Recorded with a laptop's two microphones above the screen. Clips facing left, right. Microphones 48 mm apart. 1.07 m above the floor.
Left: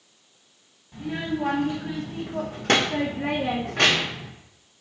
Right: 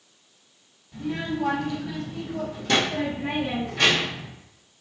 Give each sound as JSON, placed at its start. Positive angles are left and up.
{"t": 0.9, "sound": "a child speaking", "side_deg": 25, "distance_m": 1.4}